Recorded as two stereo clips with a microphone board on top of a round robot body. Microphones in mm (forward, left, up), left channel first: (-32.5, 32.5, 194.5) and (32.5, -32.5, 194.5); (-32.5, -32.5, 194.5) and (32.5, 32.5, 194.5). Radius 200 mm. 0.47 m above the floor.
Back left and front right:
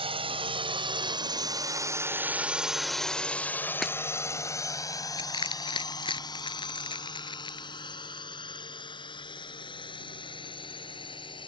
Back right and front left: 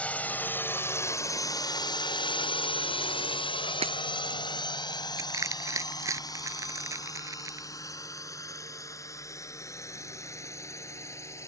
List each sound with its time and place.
0.0 s a drone: 60° right; by 11.5 s 165° left
3.8 s breaking glass: 50° left
5.2 s crushing: 100° left